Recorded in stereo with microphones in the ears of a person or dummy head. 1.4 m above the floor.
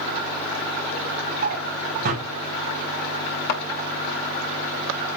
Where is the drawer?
50° right (ahead or behind), 4 m.